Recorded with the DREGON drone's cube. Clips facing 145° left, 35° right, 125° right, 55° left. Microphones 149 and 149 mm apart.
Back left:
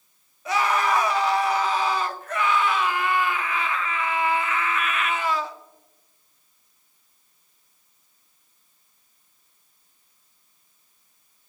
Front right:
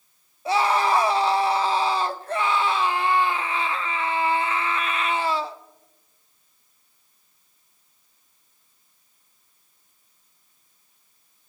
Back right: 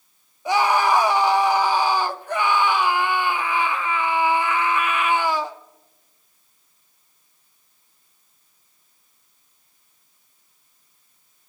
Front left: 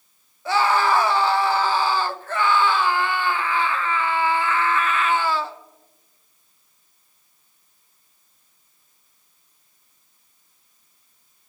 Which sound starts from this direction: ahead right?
A scream, at 0.5 s.